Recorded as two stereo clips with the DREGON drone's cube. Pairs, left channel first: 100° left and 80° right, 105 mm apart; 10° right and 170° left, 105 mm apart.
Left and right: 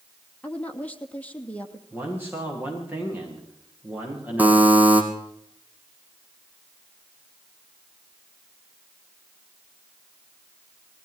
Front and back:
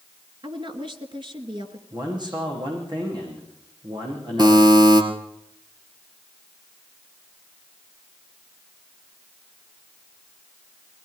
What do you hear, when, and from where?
0.4 s a woman speaking: 175° left, 2.5 m
1.9 s a man speaking: 150° right, 8.5 m
4.4 s a buzzer: 150° right, 3.5 m